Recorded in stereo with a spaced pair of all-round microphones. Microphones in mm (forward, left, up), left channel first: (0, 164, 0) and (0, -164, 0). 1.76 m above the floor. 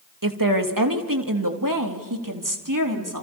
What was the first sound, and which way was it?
A woman speaking, 75° right (ahead or behind).